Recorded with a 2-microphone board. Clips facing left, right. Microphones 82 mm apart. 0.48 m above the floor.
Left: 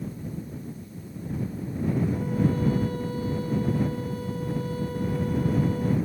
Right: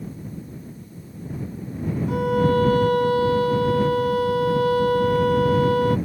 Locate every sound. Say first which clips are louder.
2.1 s a violin: right 6 dB; 65° right (ahead or behind)